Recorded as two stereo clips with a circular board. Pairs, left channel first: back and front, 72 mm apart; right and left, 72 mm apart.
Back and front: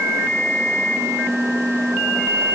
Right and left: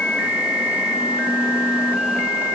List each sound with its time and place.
Only background noise.